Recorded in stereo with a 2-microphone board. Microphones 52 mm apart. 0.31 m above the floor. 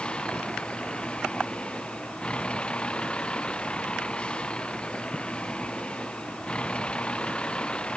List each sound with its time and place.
0.0 s a vehicle: 20° left (ahead or behind)